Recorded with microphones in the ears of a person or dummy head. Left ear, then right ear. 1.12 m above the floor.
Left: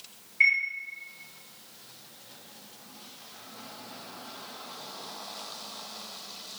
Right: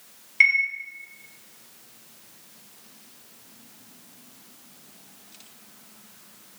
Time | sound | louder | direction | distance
0.4 | a chime | right 4 dB | 60° right (ahead or behind) | 0.9 m